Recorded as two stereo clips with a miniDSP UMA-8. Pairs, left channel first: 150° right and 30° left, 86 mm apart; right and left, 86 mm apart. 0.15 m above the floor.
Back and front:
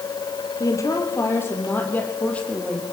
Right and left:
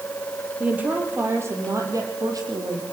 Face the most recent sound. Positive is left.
turn(degrees=130)